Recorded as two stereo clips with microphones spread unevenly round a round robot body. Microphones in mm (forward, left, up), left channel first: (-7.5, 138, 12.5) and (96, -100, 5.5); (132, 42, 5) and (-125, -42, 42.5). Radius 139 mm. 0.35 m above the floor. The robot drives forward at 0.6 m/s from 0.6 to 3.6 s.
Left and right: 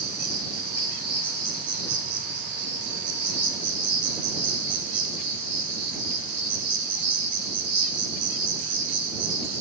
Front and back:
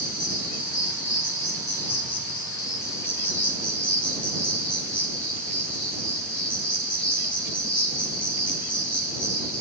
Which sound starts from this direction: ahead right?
An insect, at 0.0 s.